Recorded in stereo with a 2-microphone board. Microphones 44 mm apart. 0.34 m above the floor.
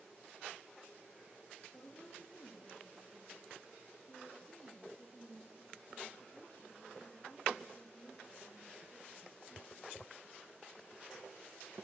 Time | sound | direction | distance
1.7 | a woman speaking | 35° left (ahead or behind) | 5 m